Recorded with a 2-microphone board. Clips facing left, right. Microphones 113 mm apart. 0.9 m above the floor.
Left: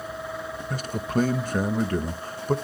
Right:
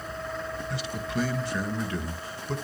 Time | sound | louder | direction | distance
0.7 | a man speaking | left 7 dB | 50° left (ahead or behind) | 0.8 m